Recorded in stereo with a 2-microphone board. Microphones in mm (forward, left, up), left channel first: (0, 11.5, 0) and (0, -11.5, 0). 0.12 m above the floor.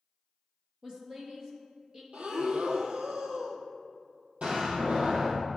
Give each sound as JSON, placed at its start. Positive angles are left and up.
{"t": 0.8, "sound": "a woman speaking", "side_deg": -35, "distance_m": 1.8}
{"t": 2.1, "sound": "breathing", "side_deg": -75, "distance_m": 1.1}
{"t": 4.4, "sound": "a door slam", "side_deg": -65, "distance_m": 3.0}